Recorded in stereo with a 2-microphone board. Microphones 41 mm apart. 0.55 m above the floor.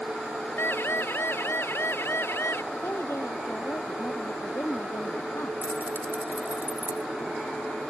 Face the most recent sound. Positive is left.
turn(degrees=-50)  # may be behind; listen again after turning